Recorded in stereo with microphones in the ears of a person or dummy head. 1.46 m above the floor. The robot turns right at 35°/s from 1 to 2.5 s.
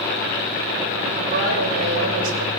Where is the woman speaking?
130° right, 6.5 m; by 2.5 s 80° right, 6.5 m.